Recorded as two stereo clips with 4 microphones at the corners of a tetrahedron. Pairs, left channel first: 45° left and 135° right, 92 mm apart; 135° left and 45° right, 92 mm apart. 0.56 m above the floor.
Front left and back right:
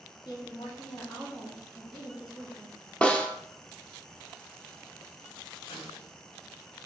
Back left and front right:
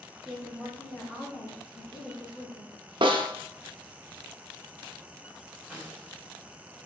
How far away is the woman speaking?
About 1.4 m.